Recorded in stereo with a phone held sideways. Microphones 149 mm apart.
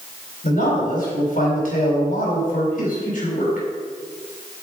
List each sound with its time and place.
0.4 s a man speaking: 65° left (ahead or behind), 4 m